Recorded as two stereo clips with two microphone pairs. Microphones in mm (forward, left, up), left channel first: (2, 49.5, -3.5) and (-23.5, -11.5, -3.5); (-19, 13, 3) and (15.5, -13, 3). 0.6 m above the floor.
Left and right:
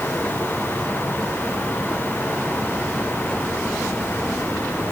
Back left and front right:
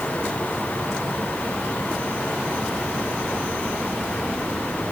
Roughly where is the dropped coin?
No dropped coin in this recording.